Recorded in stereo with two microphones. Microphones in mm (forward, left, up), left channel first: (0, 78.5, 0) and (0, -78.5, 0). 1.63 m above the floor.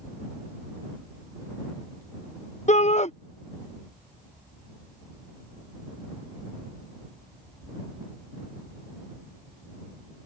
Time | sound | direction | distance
2.7 | a shout | 45° left (ahead or behind) | ?